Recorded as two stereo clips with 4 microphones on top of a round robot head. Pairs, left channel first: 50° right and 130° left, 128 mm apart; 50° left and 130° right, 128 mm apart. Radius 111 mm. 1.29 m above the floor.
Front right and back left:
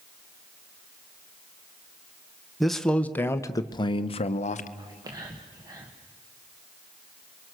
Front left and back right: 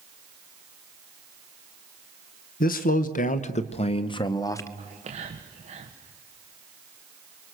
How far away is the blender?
No blender in this recording.